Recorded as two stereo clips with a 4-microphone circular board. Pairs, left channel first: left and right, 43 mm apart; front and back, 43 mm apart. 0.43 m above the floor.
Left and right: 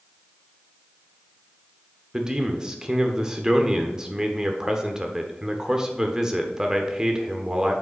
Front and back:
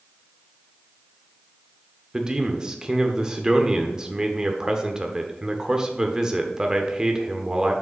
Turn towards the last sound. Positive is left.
turn(degrees=-135)